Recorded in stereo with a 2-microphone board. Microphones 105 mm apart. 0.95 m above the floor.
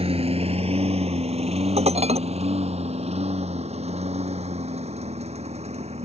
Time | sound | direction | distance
0.0 | a lawn mower | 70° right (ahead or behind) | ?
1.8 | dishes clattering | 85° right | ?